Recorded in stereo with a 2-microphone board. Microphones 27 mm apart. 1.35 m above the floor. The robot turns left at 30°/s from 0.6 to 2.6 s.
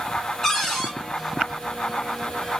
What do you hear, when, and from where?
0.4 s a cupboard door: 10° left (ahead or behind), 1.8 m; by 0.9 s centre (ahead or behind), 1.8 m